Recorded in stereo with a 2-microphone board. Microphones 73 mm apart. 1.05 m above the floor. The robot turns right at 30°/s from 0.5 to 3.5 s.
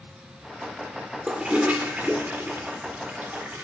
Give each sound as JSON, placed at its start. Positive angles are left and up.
{"t": 1.3, "sound": "a toilet flushing", "side_deg": -15, "distance_m": 0.7}